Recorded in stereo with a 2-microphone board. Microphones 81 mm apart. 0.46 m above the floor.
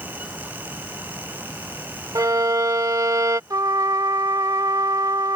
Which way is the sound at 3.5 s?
50° right (ahead or behind).